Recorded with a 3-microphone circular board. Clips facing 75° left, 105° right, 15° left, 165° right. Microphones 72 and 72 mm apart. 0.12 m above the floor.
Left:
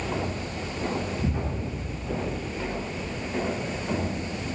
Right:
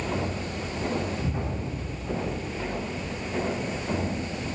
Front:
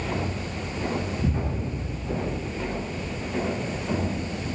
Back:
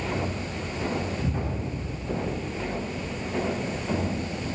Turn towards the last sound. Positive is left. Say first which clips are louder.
# left 1 dB, front 2 dB
turn(degrees=30)